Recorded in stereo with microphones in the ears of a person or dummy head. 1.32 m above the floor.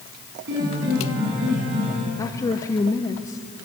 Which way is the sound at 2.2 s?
20° left (ahead or behind).